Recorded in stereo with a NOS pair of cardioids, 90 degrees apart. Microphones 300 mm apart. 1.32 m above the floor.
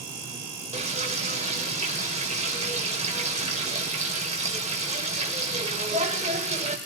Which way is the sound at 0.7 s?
20° right.